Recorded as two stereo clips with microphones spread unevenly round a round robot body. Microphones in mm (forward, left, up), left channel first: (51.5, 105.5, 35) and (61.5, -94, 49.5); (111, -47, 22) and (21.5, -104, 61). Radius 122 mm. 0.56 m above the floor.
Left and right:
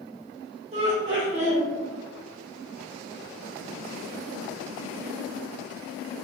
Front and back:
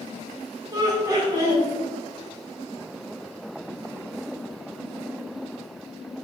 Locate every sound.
0.7 s laughter: 75° right, 1.3 m